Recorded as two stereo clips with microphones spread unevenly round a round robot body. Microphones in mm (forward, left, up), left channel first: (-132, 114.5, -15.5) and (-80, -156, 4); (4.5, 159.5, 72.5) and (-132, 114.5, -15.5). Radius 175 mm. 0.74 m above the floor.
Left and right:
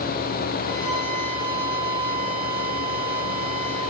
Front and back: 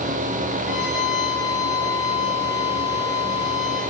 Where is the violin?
5° right, 4 m.